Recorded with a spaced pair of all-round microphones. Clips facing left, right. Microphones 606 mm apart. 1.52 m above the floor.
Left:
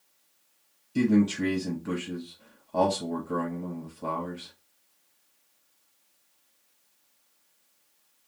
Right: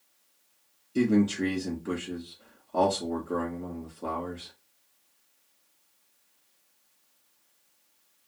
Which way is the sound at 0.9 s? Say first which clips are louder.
Left 1 dB; 20° left (ahead or behind).